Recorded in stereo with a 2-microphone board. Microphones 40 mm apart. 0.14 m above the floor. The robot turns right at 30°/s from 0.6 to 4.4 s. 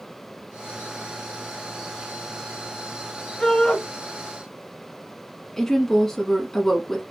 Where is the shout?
15° left (ahead or behind), 1.6 m; by 3.8 s 20° left (ahead or behind), 1.6 m.